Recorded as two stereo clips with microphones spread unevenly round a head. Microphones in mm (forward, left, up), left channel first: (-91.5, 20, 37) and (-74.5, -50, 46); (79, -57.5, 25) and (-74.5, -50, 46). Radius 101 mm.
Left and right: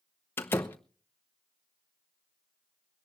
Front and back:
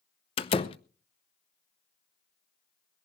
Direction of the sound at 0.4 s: 40° left.